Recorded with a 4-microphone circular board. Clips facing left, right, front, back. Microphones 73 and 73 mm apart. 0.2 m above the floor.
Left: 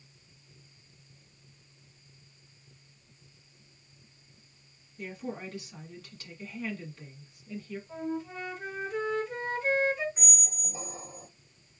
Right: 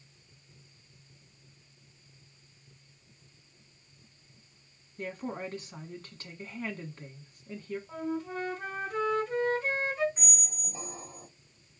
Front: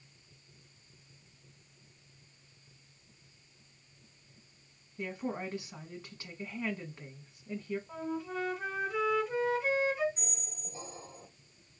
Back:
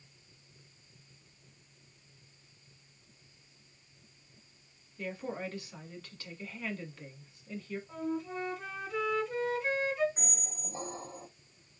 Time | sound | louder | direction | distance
5.0 | a woman speaking | right 2 dB, front 1 dB | 60° right | 1.5 m
7.9 | a flute | even, back 1 dB | 70° right | 2.5 m
10.2 | a squeak | left 1 dB, back 4 dB | 175° left | 0.7 m